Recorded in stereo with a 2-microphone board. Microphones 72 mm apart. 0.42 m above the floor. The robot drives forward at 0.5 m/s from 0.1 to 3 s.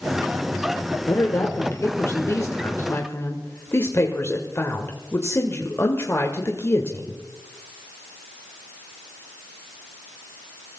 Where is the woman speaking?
40° left (ahead or behind), 1.6 m; by 7.2 s 35° left (ahead or behind), 1.7 m.